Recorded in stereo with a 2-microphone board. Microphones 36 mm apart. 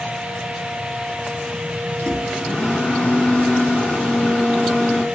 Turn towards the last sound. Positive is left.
turn(degrees=40)  # may be behind; listen again after turning